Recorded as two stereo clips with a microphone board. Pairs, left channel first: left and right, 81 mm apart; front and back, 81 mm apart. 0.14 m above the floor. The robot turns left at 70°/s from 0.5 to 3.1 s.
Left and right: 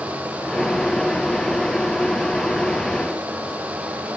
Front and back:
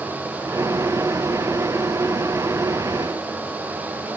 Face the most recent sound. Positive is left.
No sound to turn to.